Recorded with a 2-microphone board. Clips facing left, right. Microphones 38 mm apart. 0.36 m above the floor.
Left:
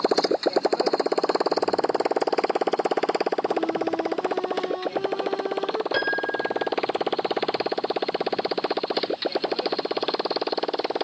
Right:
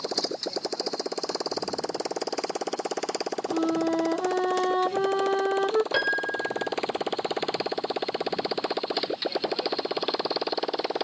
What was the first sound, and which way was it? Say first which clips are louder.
A motorcycle: left 9 dB; 40° left (ahead or behind).